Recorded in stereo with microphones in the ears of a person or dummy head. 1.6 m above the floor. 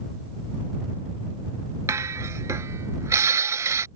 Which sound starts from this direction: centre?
Dishes clattering, at 1.9 s.